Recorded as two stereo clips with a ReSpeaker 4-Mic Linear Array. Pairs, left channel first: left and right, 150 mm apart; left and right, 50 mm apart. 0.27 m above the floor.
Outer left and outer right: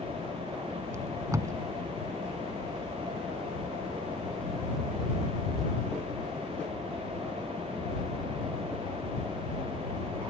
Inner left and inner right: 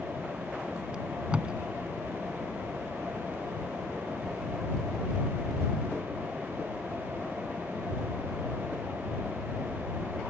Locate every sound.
0.9 s tape being pulled: 20° right (ahead or behind)